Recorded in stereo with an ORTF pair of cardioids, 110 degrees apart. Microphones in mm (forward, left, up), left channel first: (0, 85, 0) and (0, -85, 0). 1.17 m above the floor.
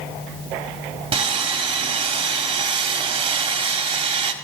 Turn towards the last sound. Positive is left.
turn(degrees=-30)